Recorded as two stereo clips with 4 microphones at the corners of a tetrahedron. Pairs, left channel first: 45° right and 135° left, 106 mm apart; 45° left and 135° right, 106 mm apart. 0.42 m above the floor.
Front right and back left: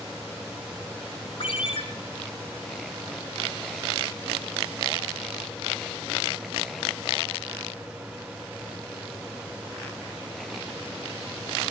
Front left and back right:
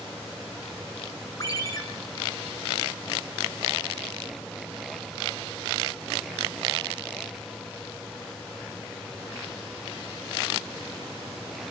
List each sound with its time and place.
1.4 s a ringtone: 10° right, 3 m